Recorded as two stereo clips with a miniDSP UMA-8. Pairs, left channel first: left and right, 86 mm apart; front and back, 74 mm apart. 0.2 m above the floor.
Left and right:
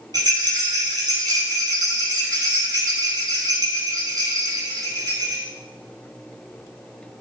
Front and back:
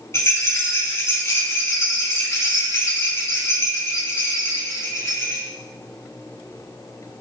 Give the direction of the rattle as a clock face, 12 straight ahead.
2 o'clock.